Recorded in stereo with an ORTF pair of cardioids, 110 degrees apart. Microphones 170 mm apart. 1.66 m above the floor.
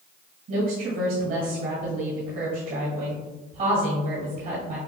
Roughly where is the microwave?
No microwave in this recording.